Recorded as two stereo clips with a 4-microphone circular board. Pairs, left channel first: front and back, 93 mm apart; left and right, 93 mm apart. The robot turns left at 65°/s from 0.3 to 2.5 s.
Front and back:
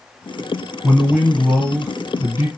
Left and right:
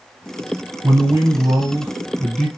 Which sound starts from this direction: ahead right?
A man speaking, at 0.8 s.